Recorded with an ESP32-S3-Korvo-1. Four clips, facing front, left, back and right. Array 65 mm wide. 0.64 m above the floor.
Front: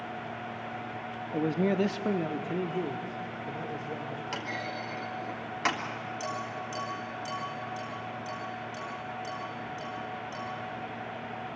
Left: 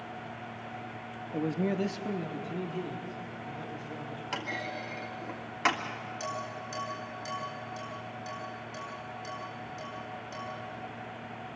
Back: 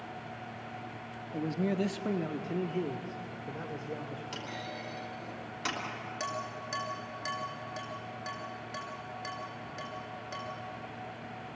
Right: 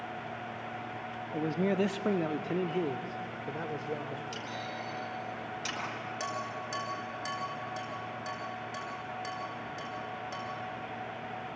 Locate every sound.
1.3 s a man speaking: 10° left, 0.7 m; by 4.2 s 90° right, 2.5 m
4.3 s a clunk: 55° left, 3 m
6.2 s dishes clattering: 145° right, 6 m